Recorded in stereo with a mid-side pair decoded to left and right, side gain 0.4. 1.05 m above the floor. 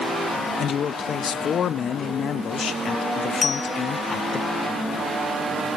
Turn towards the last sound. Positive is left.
turn(degrees=35)